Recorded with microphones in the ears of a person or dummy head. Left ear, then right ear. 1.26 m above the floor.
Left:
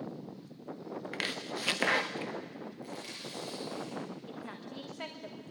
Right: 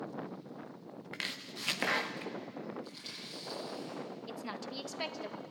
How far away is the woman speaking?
About 1.3 m.